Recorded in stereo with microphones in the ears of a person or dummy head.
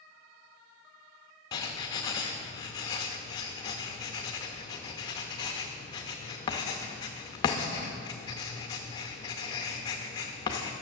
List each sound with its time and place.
1.5 s writing: 20° left (ahead or behind), 0.7 m